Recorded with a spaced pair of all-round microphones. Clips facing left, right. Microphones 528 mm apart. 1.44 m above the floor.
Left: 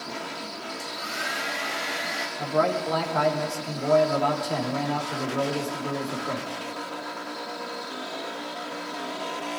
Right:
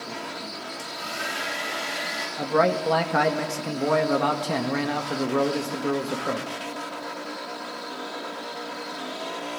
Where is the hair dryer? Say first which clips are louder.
Even; 55° right (ahead or behind), 6.5 m.